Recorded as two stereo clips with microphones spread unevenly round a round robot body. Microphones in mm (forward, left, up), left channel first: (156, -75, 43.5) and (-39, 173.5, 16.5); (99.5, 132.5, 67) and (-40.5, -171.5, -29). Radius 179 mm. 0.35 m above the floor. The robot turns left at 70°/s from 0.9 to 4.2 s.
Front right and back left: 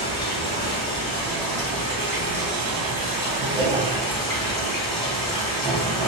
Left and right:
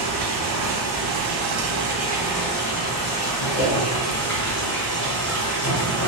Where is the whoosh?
70° left, 2.0 m; by 3.8 s 55° left, 2.0 m.